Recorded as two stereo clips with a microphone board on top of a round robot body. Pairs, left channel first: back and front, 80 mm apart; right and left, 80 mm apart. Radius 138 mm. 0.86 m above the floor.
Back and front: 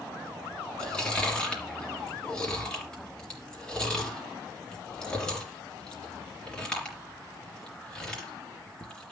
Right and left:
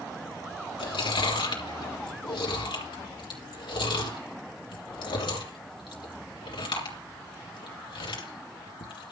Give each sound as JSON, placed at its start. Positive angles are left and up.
{"t": 0.8, "sound": "chewing", "azimuth_deg": -100, "distance_m": 3.0}